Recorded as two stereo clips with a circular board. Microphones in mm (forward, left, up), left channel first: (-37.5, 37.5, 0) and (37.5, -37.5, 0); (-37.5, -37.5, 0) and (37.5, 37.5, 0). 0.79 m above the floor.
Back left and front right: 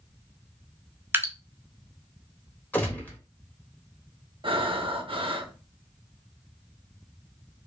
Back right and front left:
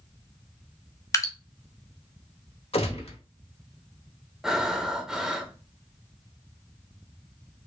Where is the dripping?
100° right, 0.5 m.